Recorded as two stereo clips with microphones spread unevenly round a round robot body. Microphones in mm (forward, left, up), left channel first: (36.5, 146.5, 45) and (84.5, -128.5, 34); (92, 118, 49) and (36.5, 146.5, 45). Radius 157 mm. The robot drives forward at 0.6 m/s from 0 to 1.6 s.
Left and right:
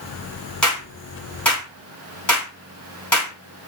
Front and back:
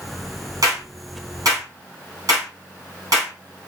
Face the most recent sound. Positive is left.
turn(degrees=-175)